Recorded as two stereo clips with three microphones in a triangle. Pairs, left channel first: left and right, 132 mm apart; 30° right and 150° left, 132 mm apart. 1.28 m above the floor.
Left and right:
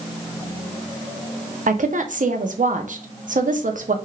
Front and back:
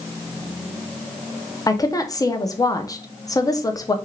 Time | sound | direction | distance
1.7 | a woman speaking | 95° right | 0.5 m